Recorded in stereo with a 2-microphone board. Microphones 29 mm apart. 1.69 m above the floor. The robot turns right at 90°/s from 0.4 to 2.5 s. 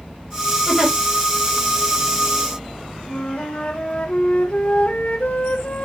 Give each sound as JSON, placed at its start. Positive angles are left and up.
{"t": 0.7, "sound": "a giggle", "side_deg": 10, "distance_m": 3.5}
{"t": 3.1, "sound": "a flute", "side_deg": 50, "distance_m": 1.4}